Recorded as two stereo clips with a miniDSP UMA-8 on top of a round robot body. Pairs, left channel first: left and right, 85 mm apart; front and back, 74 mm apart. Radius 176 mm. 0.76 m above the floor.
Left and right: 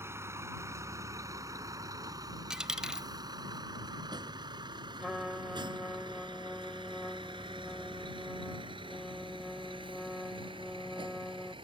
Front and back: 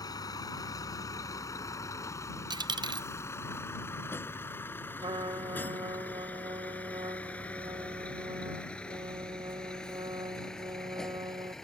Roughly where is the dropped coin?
Behind.